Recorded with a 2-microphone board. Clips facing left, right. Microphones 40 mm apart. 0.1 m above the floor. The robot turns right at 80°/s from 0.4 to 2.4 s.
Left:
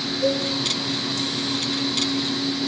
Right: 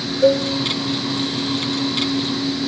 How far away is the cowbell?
About 3 m.